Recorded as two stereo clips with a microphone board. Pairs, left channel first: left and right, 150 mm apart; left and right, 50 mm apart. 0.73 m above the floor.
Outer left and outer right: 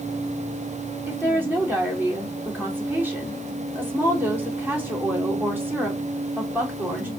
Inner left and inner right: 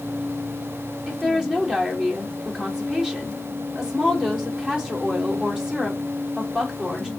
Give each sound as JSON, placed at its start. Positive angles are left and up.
{"t": 1.1, "sound": "a woman speaking", "side_deg": -15, "distance_m": 2.0}